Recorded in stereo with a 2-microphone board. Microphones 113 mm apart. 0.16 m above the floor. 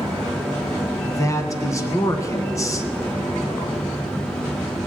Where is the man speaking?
30° left (ahead or behind), 1.1 m.